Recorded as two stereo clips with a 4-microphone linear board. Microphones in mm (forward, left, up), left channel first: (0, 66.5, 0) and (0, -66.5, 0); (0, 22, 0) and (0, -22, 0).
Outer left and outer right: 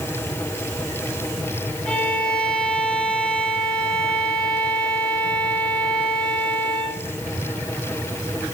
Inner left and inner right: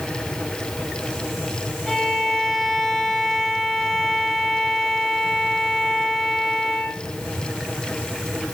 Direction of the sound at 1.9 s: 10° left (ahead or behind).